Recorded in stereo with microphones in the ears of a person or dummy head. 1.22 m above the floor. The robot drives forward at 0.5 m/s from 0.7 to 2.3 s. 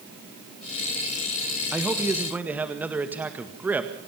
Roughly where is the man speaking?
Centre.